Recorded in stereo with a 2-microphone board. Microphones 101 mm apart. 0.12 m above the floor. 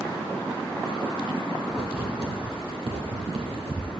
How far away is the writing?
About 2.0 m.